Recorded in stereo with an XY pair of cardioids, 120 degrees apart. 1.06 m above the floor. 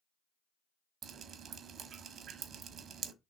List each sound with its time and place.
1.0 s dripping: 55° right, 1.0 m